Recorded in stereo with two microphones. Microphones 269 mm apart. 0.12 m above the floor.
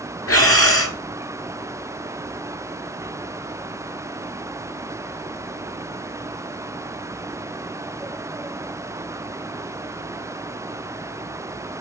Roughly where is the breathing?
Left.